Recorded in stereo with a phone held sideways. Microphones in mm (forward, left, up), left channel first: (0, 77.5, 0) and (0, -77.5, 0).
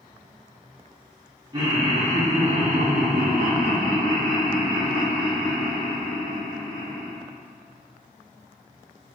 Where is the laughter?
25° right (ahead or behind), 1.0 m.